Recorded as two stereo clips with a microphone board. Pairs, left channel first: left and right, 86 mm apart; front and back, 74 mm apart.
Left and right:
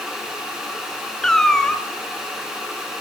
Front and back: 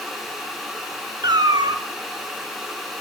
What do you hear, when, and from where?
1.2 s a cat meowing: 175° left, 0.8 m